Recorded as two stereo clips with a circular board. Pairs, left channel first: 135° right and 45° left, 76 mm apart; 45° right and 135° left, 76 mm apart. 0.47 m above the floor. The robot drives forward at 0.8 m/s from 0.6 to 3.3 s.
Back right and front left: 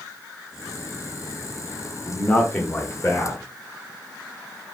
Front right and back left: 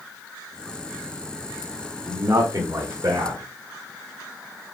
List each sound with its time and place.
2.1 s a man speaking: 145° left, 0.8 m; by 3.4 s 170° left, 1.6 m